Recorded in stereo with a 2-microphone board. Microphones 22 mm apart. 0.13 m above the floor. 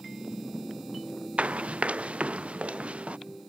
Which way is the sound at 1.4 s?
80° right.